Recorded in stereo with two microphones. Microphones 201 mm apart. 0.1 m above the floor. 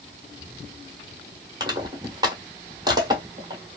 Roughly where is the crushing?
Centre.